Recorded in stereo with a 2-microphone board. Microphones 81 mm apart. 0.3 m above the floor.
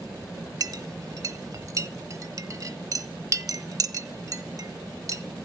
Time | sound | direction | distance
0.6 | a clink | 45° right (ahead or behind) | 0.6 m